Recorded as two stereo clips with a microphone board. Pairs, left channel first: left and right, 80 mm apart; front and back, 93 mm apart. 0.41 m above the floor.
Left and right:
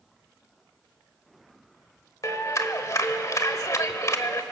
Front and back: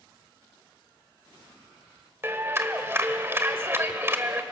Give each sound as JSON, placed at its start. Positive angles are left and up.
{"t": 2.2, "sound": "a clap", "azimuth_deg": 125, "distance_m": 1.3}